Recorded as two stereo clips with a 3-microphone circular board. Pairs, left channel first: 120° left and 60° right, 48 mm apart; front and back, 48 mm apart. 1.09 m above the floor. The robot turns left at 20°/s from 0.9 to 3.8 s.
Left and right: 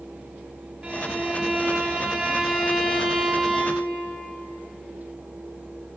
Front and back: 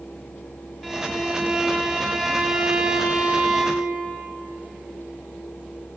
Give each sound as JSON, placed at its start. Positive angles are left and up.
{"t": 0.8, "sound": "a violin", "azimuth_deg": -85, "distance_m": 0.9}